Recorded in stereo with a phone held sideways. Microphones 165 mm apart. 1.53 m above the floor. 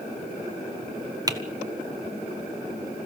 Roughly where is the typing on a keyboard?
Right.